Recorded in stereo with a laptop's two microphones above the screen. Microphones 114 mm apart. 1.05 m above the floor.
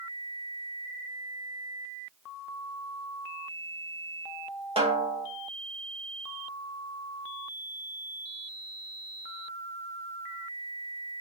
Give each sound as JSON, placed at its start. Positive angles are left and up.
{"t": 4.8, "sound": "a snare drum", "side_deg": -55, "distance_m": 1.8}